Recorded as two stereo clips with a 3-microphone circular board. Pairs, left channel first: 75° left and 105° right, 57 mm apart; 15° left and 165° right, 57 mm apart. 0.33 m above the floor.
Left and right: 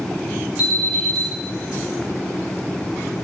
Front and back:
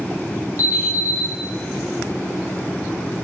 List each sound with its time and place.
0.6 s an alarm: 160° right, 2 m